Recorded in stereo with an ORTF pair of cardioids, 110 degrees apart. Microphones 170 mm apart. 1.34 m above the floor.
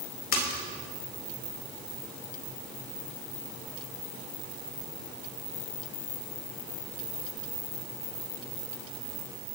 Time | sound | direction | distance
0.3 | a splash | 65° left | 4 m